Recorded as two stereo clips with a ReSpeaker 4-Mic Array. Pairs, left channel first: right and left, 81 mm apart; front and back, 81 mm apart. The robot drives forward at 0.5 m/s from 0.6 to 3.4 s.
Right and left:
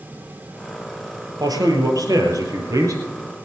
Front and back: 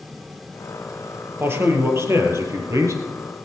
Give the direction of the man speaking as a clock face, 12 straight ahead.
8 o'clock.